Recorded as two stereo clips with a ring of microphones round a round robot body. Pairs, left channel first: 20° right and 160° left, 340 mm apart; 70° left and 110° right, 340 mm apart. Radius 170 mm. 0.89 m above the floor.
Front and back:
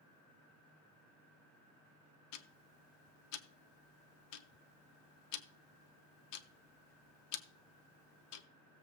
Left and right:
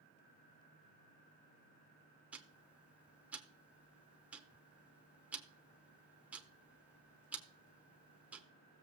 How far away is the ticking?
About 1.0 m.